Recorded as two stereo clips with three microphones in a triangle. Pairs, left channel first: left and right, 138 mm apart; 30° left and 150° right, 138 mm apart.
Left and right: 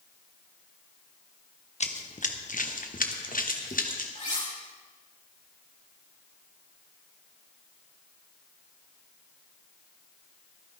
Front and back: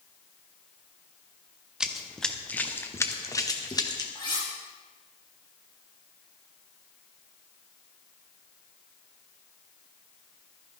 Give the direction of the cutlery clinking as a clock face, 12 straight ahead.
9 o'clock.